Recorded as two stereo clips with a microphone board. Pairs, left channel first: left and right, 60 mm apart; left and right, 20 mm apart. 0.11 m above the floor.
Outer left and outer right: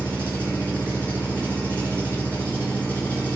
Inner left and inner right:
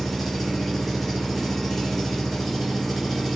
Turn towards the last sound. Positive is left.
turn(degrees=20)  # may be behind; listen again after turning